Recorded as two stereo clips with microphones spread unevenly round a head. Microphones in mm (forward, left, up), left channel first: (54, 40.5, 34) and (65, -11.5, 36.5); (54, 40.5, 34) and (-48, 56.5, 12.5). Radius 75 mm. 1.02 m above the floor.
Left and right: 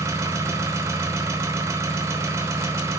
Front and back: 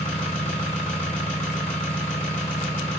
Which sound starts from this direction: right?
An engine running, at 0.0 s.